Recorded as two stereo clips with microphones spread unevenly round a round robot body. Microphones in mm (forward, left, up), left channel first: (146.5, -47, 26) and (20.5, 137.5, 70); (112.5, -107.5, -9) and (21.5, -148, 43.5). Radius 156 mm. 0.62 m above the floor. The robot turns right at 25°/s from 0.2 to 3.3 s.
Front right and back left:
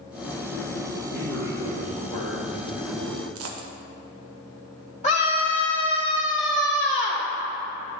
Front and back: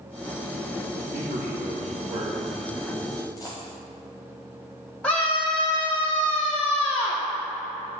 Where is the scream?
20° right, 1.5 m.